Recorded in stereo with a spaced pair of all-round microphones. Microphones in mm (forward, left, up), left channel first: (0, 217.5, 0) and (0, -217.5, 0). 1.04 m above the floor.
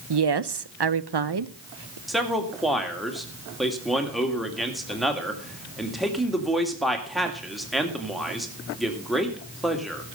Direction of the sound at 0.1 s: 65° right (ahead or behind).